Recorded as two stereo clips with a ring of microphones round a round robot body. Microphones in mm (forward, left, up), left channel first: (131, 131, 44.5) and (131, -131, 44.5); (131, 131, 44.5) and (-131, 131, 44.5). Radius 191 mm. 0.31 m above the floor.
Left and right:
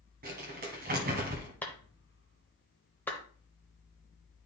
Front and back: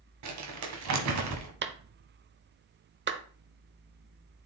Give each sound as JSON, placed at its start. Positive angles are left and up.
{"t": 0.2, "sound": "crumpling", "azimuth_deg": -155, "distance_m": 1.1}
{"t": 1.6, "sound": "a clap", "azimuth_deg": 170, "distance_m": 0.8}